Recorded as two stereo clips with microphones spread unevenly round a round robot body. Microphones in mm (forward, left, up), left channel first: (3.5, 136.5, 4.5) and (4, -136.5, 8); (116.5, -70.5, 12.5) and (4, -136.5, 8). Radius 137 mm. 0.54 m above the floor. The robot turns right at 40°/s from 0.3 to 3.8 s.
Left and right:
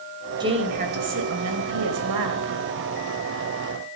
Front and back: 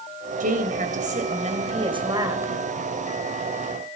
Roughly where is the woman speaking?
Behind.